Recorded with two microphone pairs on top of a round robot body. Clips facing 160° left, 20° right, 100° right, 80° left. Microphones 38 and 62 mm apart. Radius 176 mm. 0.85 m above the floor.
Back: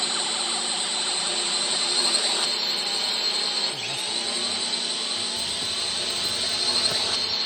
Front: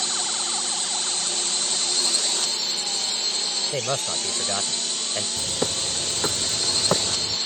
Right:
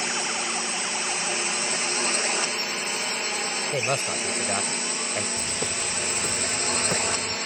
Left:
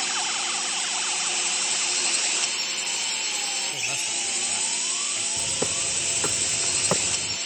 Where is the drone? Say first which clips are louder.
Back 1 dB, right 1 dB; 140° right; by 7.5 s 125° right.